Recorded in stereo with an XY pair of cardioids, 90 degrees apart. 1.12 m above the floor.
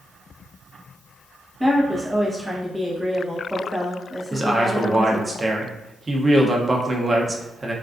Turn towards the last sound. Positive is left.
turn(degrees=-30)